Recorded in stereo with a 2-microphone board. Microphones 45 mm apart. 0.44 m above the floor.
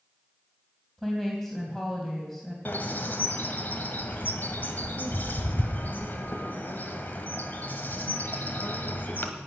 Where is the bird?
45° left (ahead or behind), 1.5 m.